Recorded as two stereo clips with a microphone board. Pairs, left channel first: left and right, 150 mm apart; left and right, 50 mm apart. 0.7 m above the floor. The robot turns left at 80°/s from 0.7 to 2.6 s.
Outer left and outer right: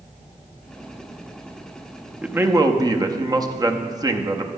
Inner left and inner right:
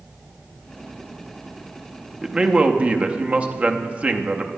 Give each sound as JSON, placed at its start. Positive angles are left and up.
{"t": 2.2, "sound": "a man speaking", "azimuth_deg": -10, "distance_m": 0.6}